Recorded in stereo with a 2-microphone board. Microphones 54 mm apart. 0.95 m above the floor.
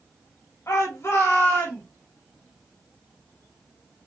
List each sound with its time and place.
0.7 s a shout: 55° left (ahead or behind), 1.2 m; by 1.8 s 45° left (ahead or behind), 1.8 m